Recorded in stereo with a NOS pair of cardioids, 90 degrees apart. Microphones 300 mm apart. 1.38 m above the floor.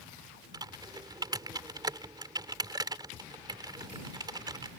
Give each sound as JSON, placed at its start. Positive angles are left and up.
{"t": 0.5, "sound": "typing on a keyboard", "azimuth_deg": -15}